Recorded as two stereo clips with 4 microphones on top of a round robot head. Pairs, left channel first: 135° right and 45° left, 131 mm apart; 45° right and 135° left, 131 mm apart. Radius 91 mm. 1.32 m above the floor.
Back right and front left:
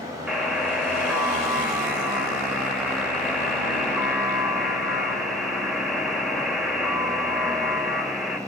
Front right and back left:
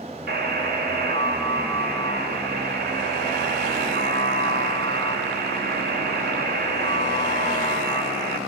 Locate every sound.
0.3 s a buzzer: 130° left, 7 m